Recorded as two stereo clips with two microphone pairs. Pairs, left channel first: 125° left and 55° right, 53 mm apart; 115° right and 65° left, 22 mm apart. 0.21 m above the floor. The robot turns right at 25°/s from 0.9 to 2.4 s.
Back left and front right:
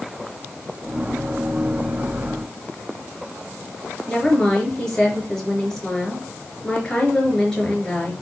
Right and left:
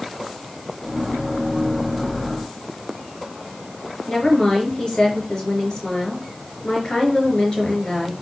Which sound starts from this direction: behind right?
A woman speaking, at 4.1 s.